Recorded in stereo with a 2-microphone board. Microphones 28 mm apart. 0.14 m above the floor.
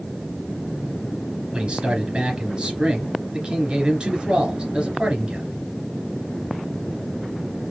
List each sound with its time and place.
1.5 s a man speaking: 35° right (ahead or behind), 2 m